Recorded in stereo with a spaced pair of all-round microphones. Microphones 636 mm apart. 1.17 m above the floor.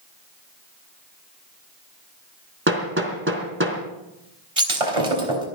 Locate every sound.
2.7 s hammering: 20° right (ahead or behind), 3.5 m
4.6 s breaking glass: 60° right (ahead or behind), 4 m